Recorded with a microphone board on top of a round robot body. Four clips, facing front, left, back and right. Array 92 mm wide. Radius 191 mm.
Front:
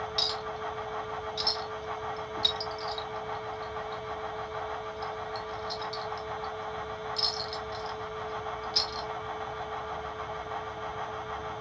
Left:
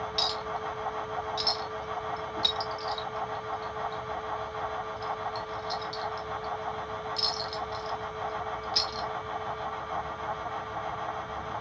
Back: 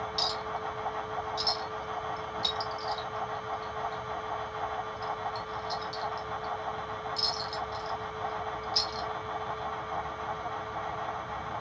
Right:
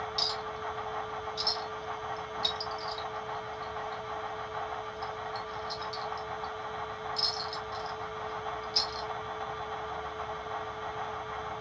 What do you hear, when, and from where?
0.2 s a clink: 65° left, 1.5 m